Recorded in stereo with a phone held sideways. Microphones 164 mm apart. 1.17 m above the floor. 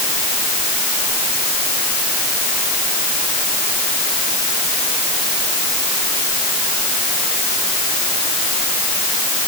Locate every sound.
Only background noise.